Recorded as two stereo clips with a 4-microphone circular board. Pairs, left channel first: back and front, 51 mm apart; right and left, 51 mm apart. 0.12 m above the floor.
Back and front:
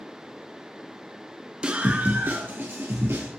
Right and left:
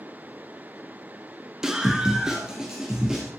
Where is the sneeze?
No sneeze in this recording.